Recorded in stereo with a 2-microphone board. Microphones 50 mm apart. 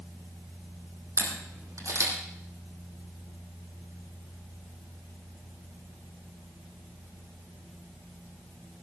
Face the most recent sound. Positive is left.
turn(degrees=-80)